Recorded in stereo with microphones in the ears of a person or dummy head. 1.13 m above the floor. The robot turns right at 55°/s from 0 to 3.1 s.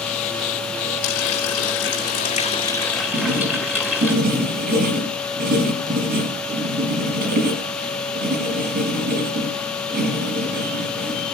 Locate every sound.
1.0 s a running tap: 70° left, 5.5 m; by 4.1 s straight behind, 5.5 m
3.1 s writing: 50° right (ahead or behind), 6.5 m